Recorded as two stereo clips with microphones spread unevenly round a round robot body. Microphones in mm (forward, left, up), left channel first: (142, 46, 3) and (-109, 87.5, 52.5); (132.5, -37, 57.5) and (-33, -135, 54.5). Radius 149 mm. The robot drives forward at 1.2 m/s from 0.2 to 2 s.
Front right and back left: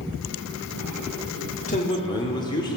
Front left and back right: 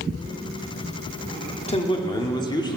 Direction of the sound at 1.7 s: 5° right.